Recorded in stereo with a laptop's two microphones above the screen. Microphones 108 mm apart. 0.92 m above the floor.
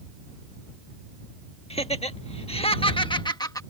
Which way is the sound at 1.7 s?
70° left (ahead or behind).